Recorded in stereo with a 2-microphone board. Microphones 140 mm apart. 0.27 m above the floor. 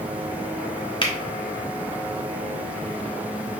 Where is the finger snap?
40° left (ahead or behind), 1.0 m.